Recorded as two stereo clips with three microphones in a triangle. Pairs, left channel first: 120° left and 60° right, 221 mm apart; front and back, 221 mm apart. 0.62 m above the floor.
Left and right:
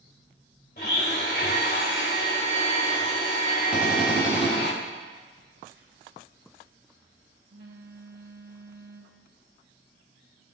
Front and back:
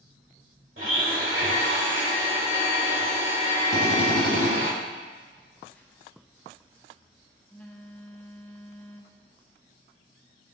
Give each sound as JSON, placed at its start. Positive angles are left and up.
{"t": 0.8, "sound": "a blender", "azimuth_deg": 160, "distance_m": 1.8}
{"t": 3.7, "sound": "a drill", "azimuth_deg": 25, "distance_m": 2.5}
{"t": 5.3, "sound": "a phone buzzing", "azimuth_deg": -80, "distance_m": 1.1}